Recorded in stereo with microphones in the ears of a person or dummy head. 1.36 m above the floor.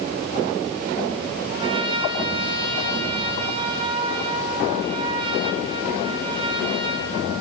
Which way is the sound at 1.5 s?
25° right (ahead or behind).